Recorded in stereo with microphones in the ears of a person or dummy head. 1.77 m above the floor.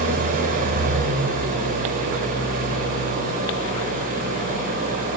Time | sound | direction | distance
0.0 | an engine running | 45° right (ahead or behind) | 4.5 m